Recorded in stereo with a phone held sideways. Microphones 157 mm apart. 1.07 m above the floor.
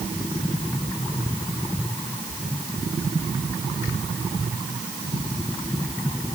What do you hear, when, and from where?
Only background noise.